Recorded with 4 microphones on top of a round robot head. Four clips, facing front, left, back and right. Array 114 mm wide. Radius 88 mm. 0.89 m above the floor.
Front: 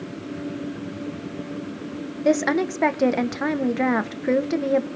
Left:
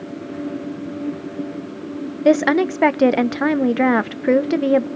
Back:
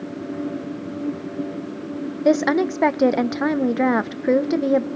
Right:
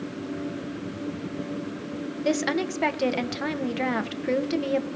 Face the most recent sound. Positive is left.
turn(degrees=105)